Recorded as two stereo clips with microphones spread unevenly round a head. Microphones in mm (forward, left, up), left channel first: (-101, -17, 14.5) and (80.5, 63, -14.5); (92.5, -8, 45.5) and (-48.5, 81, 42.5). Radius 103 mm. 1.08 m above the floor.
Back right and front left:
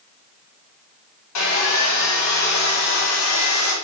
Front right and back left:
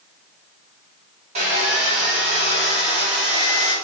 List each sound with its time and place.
1.4 s sawing: 155° right, 4.5 m